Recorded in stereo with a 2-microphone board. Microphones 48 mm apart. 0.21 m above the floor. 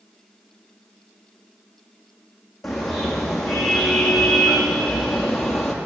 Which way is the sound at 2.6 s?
5° left (ahead or behind).